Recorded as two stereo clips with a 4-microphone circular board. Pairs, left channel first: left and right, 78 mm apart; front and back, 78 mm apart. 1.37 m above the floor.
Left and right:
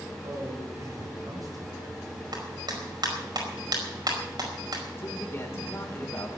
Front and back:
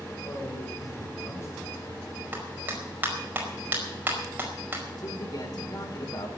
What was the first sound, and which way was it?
A man speaking, 50° right.